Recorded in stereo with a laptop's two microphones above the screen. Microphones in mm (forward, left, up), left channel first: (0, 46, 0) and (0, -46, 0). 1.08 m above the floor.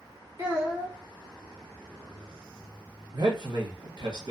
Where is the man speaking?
50° right (ahead or behind), 0.8 m.